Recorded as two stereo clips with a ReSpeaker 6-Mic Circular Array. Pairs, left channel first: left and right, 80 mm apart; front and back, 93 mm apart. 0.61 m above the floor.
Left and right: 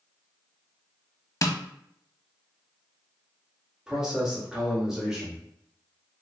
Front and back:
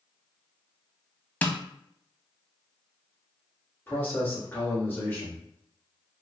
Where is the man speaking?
20° right, 1.2 m.